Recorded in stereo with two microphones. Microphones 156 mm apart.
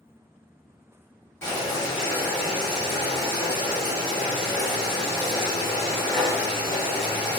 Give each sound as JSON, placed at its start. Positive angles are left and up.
{"t": 1.4, "sound": "boiling", "side_deg": 15, "distance_m": 1.6}